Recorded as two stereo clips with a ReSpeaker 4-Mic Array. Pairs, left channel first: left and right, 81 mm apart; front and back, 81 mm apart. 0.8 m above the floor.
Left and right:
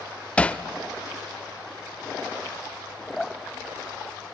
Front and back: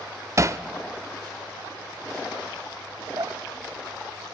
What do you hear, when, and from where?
0.4 s hammering: 155° left, 0.5 m
3.2 s dripping: 170° left, 1.0 m